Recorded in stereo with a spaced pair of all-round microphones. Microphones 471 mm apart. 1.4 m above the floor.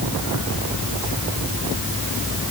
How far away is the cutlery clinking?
I don't hear cutlery clinking.